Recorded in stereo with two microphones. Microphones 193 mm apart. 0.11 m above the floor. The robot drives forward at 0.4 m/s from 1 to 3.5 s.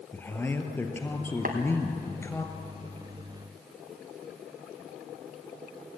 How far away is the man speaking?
About 2 m.